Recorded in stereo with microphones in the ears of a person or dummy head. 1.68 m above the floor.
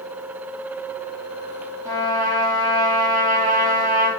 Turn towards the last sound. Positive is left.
turn(degrees=-20)  # may be behind; listen again after turning